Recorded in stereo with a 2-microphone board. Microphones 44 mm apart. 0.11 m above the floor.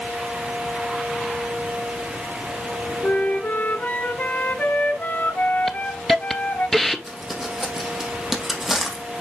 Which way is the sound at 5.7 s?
5° left (ahead or behind).